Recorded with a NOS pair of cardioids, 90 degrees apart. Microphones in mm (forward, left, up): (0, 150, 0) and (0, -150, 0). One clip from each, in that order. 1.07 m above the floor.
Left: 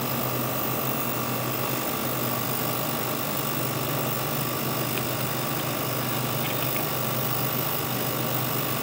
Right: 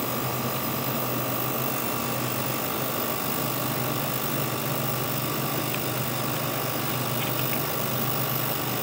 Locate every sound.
Only background noise.